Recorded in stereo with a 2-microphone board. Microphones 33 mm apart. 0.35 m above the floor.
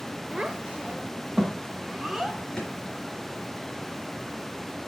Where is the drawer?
25° left (ahead or behind), 3 m.